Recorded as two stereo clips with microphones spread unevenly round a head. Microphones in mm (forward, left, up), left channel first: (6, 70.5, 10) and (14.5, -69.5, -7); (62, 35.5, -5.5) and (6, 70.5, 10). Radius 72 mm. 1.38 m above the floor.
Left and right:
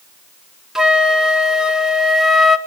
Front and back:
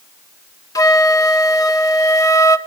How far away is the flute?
About 1.3 m.